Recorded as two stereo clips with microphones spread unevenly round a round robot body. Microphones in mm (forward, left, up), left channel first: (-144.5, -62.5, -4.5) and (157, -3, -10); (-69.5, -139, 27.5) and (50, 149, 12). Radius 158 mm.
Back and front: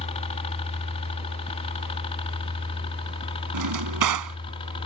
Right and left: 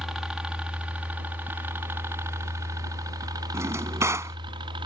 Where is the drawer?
15° right.